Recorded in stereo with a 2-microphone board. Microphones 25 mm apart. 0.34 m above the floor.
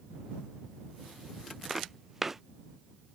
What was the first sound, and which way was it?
Footsteps, 15° right (ahead or behind).